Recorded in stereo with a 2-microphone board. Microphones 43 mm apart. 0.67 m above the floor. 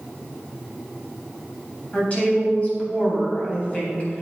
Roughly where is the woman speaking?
Left.